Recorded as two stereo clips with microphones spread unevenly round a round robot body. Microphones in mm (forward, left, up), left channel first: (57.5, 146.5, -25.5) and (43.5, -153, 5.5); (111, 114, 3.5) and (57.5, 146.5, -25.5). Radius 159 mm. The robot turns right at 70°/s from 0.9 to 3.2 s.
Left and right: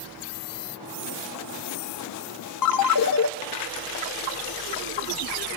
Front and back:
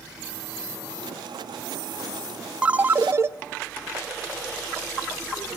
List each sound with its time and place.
2.6 s a ringtone: 90° left, 0.7 m; by 3.3 s 130° left, 0.7 m